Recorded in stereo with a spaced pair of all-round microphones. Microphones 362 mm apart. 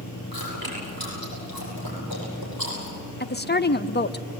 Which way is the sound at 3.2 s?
30° left (ahead or behind).